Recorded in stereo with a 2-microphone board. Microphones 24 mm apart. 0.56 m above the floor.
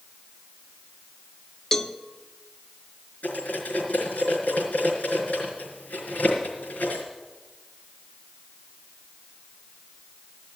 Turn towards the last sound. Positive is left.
turn(degrees=90)